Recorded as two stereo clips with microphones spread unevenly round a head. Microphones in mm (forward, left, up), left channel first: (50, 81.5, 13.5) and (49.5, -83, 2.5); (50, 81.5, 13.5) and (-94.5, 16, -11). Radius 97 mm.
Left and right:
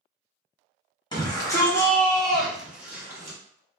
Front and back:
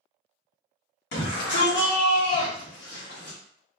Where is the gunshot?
I don't hear a gunshot.